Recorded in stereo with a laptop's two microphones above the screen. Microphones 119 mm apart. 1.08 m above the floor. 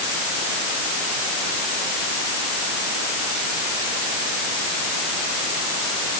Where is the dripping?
I don't hear dripping.